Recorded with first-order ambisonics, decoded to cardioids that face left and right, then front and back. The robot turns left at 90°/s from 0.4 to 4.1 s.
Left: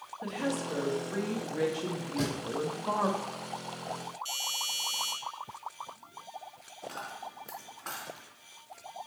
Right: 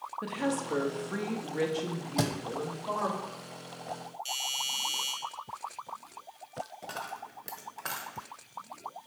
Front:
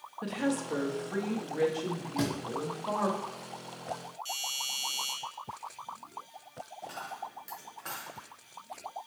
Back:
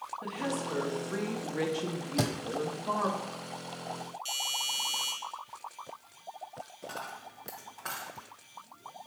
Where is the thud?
135° right, 0.9 m; by 2.3 s 150° right, 0.9 m.